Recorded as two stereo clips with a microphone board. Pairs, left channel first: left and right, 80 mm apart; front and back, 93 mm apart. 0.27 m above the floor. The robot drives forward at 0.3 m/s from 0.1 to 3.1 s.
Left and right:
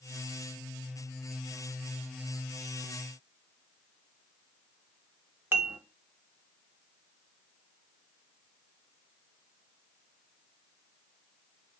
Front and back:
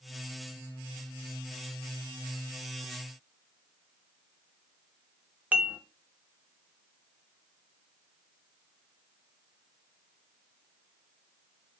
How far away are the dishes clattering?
About 0.8 m.